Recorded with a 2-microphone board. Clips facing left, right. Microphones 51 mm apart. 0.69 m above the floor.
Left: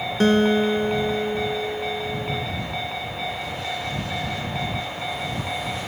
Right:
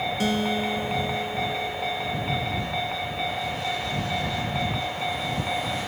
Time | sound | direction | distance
0.2 | a guitar | 50° left (ahead or behind) | ?